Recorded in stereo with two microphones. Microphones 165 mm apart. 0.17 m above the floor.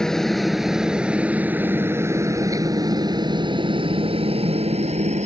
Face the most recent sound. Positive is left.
turn(degrees=-45)  # may be behind; listen again after turning